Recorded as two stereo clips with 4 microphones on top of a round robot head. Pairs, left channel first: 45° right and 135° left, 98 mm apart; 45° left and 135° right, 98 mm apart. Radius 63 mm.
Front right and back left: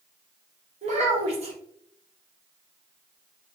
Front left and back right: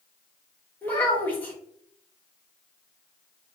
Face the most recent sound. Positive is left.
turn(degrees=120)